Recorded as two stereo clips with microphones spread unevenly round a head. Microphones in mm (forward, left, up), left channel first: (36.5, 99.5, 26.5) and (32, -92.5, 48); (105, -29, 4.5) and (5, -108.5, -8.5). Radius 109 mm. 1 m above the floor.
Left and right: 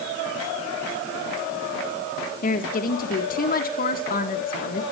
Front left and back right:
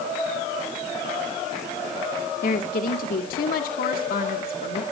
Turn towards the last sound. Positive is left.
turn(degrees=50)